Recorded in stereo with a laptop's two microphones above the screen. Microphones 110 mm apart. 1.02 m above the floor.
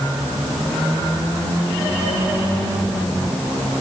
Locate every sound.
Only background noise.